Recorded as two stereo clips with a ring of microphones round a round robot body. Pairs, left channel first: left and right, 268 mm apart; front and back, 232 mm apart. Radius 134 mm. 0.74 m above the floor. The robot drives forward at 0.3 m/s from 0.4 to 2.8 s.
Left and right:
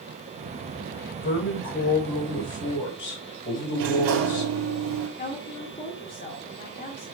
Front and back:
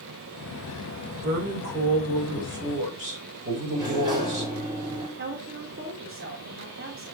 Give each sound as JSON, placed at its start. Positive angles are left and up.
{"t": 1.2, "sound": "a woman speaking", "azimuth_deg": 140, "distance_m": 4.5}
{"t": 3.7, "sound": "a sliding door", "azimuth_deg": -105, "distance_m": 3.0}
{"t": 5.2, "sound": "a woman speaking", "azimuth_deg": 150, "distance_m": 2.0}